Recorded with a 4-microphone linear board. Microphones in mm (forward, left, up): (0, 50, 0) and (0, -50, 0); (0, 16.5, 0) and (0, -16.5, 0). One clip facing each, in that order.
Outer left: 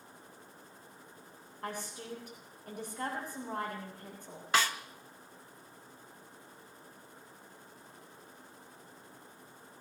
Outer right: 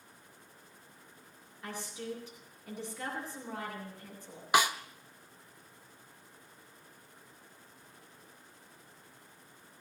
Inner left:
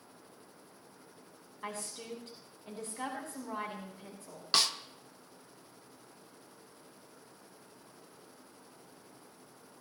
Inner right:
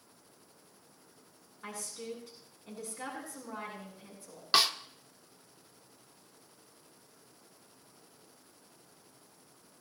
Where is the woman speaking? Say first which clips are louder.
Even, even; 60° left (ahead or behind), 8 m.